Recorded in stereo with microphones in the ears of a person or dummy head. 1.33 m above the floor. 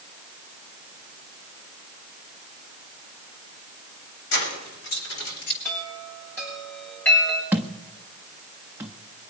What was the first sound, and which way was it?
Keys jangling, 60° left (ahead or behind).